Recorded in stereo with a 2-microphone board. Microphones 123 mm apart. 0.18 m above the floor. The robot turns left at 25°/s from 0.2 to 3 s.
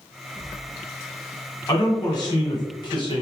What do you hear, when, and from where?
1.7 s a man speaking: 130° left, 1.3 m; by 3.2 s 95° left, 1.3 m